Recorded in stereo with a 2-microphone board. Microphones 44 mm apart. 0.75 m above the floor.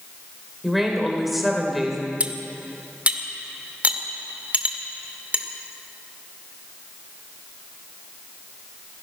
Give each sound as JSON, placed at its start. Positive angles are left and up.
{"t": 0.6, "sound": "a woman speaking", "side_deg": 0, "distance_m": 3.0}
{"t": 2.2, "sound": "cutlery clinking", "side_deg": -30, "distance_m": 1.2}